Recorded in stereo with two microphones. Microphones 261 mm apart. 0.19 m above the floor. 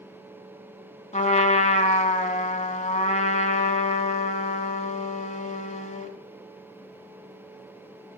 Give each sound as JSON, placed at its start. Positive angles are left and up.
{"t": 1.1, "sound": "a trumpet", "side_deg": 25, "distance_m": 0.9}